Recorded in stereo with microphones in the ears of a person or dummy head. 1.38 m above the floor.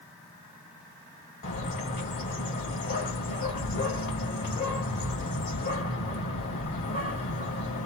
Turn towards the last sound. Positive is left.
turn(degrees=45)  # may be behind; listen again after turning